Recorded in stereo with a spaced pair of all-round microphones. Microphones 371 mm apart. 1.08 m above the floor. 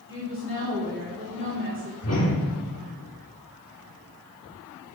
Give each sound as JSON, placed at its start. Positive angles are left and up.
{"t": 0.1, "sound": "a woman speaking", "side_deg": -35, "distance_m": 2.5}
{"t": 2.0, "sound": "a whoosh", "side_deg": 40, "distance_m": 1.2}